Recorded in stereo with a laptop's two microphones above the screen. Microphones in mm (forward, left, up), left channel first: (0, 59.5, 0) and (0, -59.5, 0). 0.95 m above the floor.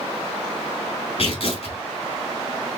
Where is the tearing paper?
55° left (ahead or behind), 4 m.